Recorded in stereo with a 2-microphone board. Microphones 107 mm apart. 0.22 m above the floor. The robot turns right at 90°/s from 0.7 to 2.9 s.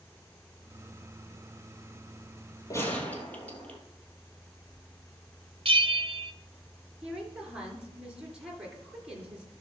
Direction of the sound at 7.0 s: 10° right (ahead or behind).